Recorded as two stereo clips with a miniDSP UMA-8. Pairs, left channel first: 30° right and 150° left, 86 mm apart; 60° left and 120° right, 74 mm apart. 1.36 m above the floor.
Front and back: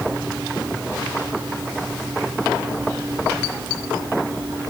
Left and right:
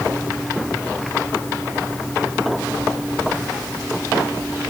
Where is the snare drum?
No snare drum in this recording.